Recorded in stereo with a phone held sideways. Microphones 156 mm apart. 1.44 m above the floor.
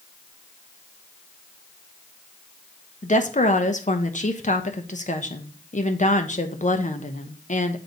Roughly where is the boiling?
I don't hear boiling.